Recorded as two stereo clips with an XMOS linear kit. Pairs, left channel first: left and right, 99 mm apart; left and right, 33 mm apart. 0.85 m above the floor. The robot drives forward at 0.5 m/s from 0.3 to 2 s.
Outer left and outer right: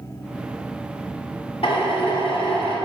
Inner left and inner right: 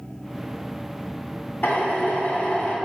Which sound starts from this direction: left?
A drill, at 1.6 s.